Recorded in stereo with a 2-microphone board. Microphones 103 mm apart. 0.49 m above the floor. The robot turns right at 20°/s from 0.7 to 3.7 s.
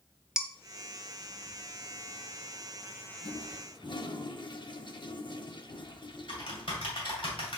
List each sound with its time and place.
0.4 s dishes clattering: 5° right (ahead or behind), 0.6 m
3.2 s a toilet flushing: 55° left (ahead or behind), 0.6 m; by 6.7 s 50° left (ahead or behind), 0.6 m
5.7 s typing on a keyboard: 55° left (ahead or behind), 2.5 m